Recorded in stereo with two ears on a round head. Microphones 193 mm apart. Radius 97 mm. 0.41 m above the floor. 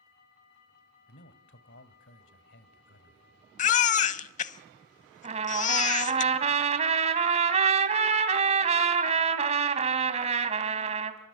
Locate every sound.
1.1 s a man speaking: 55° left (ahead or behind), 1.8 m
3.6 s a baby crying: 35° left (ahead or behind), 0.7 m
5.2 s a trumpet: 35° right (ahead or behind), 2 m